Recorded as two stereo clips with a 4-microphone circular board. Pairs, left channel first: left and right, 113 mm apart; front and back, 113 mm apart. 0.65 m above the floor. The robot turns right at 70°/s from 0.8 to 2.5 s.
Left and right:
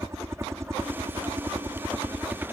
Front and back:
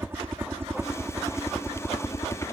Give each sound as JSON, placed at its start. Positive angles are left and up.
{"t": 0.0, "sound": "a helicopter", "azimuth_deg": -130}